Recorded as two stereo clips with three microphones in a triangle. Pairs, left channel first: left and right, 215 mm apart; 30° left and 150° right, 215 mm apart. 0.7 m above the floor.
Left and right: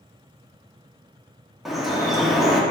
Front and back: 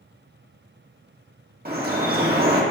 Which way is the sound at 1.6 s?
Straight behind.